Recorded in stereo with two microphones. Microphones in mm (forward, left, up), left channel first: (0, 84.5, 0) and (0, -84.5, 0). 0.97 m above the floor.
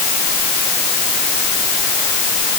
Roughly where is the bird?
No bird in this recording.